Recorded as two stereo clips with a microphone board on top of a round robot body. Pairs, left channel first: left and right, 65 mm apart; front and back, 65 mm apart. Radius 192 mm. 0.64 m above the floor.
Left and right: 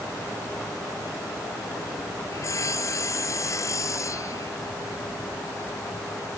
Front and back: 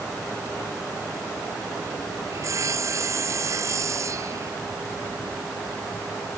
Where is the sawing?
135° left.